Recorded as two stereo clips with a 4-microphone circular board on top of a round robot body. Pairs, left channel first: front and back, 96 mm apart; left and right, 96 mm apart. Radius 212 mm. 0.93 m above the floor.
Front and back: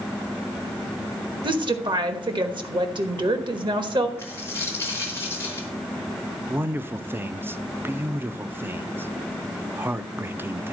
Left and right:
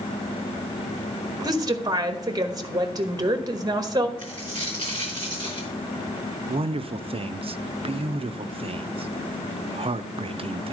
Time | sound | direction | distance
1.4 | a woman speaking | 140° right | 1.2 m
4.2 | a dropped coin | 60° left | 0.7 m
6.5 | a man speaking | 110° right | 0.6 m